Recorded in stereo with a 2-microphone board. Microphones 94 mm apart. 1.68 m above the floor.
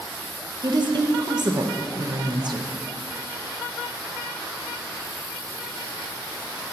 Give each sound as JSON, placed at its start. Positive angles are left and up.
{"t": 0.6, "sound": "a woman speaking", "side_deg": -50, "distance_m": 0.9}